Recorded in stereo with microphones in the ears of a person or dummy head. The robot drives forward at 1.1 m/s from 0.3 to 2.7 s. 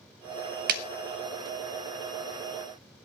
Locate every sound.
0.7 s a clap: 50° right (ahead or behind), 0.9 m; by 0.8 s 55° right (ahead or behind), 0.9 m